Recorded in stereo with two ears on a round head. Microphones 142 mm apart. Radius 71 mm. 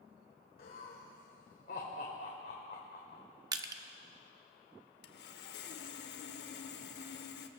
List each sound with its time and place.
0.6 s laughter: 60° left (ahead or behind), 1.9 m
3.5 s crushing: 25° right (ahead or behind), 0.8 m
5.0 s sawing: 75° left (ahead or behind), 0.9 m